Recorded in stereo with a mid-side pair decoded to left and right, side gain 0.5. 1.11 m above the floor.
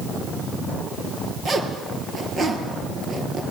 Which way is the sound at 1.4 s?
45° right.